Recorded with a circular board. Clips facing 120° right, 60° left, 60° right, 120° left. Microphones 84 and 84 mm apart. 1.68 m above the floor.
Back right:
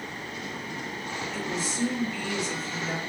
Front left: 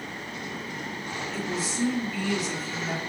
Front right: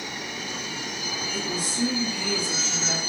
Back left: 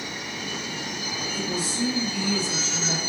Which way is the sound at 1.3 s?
30° right.